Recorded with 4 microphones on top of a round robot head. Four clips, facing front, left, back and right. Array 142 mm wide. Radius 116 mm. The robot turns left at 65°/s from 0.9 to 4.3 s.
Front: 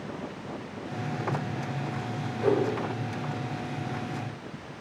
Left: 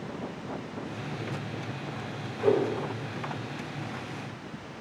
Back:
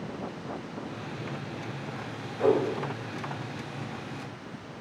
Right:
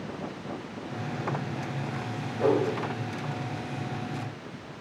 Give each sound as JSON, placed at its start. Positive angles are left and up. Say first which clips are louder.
{"t": 2.4, "sound": "a whoosh", "louder": "even, back 1 dB", "azimuth_deg": -130, "distance_m": 3.5}